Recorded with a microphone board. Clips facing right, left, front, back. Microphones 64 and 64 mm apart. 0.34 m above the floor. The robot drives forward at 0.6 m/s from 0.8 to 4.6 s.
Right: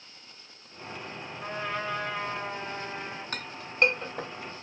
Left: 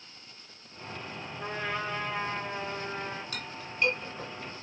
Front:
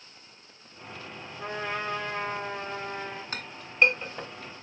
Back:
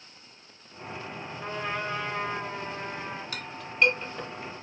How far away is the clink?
About 1.1 m.